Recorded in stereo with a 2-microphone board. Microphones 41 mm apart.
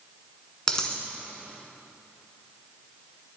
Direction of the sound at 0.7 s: 15° left (ahead or behind).